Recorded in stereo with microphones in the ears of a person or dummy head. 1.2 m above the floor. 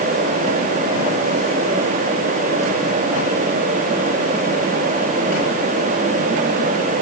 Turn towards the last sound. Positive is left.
No sound to turn to.